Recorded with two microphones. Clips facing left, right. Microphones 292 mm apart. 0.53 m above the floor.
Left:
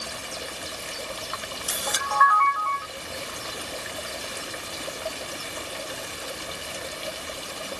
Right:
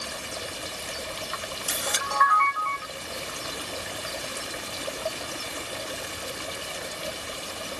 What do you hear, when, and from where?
1.3 s a camera shutter: 30° right (ahead or behind), 1.0 m